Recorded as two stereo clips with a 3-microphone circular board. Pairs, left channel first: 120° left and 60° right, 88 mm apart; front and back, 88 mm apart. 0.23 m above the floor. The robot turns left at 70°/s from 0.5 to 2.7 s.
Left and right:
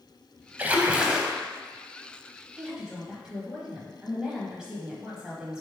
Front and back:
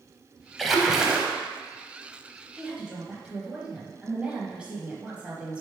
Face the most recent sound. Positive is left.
turn(degrees=-125)